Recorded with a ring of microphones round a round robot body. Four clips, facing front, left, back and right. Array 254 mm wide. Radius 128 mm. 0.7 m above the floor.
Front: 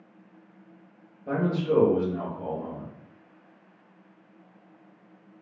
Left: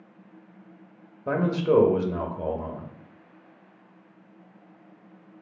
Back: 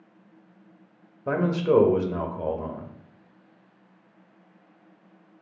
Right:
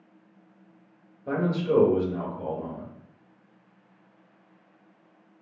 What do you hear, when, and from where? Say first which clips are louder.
1.3 s a man speaking: left 3 dB, back 3 dB; 140° left, 0.6 m